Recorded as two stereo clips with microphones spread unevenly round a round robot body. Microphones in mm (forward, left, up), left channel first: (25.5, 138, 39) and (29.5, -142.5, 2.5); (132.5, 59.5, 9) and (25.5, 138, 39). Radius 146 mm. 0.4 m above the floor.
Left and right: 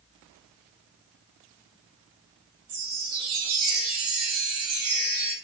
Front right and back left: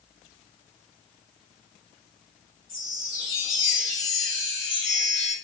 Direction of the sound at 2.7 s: 90° right.